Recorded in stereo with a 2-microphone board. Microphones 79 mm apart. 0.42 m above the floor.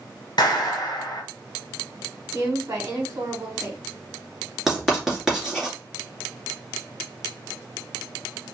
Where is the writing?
5° right (ahead or behind), 2 m.